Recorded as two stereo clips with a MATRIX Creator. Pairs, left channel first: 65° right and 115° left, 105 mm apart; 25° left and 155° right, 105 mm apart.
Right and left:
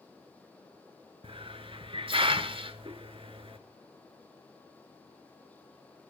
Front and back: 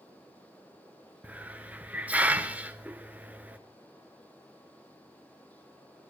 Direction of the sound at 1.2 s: 130° left.